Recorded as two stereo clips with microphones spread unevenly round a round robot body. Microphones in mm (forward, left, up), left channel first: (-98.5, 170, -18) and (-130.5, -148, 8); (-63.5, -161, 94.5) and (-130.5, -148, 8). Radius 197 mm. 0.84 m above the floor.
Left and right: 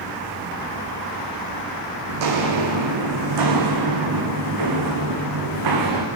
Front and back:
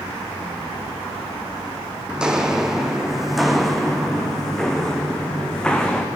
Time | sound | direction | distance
2.1 | footsteps | 95° right | 3.5 m